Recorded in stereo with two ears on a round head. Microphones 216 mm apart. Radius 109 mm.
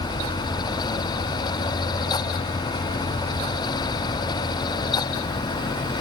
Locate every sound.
Only background noise.